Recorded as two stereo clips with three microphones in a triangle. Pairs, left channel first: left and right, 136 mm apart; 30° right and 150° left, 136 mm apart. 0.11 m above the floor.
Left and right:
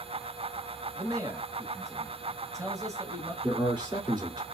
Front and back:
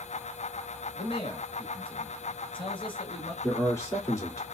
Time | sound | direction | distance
0.9 | a man speaking | 40° right | 1.3 m
3.4 | a man speaking | 80° right | 1.9 m